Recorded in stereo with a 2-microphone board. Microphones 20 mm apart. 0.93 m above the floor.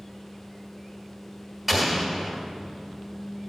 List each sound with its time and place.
1.7 s an explosion: 10° right (ahead or behind), 1.5 m